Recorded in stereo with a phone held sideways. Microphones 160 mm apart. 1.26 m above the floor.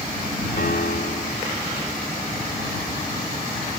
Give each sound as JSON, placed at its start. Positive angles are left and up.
{"t": 0.6, "sound": "a piano", "side_deg": 80}